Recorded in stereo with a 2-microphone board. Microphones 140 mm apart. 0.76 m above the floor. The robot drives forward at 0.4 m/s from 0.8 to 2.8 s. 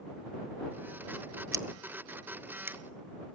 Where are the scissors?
25° right (ahead or behind), 1.0 m; by 2.8 s 15° right (ahead or behind), 1.5 m.